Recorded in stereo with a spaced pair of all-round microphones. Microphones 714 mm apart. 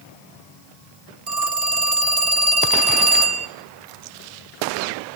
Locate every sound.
1.3 s a phone ringing: 60° right (ahead or behind), 1.4 m